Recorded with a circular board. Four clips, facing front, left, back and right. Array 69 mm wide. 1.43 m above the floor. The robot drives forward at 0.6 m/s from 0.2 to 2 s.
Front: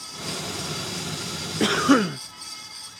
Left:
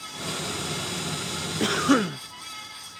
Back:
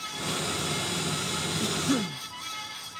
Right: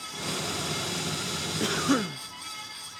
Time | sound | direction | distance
1.6 | a cough | 15° left | ?